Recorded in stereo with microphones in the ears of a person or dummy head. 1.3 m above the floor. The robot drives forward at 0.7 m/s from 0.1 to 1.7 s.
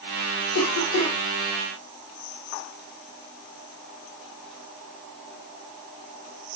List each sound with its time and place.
0.6 s a cough: 65° left (ahead or behind), 1.0 m; by 1.2 s 50° left (ahead or behind), 1.1 m